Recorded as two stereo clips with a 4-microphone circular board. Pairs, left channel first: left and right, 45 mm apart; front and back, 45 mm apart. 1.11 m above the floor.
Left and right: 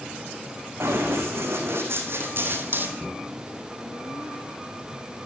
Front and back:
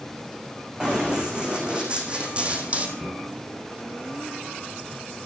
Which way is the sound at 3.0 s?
155° right.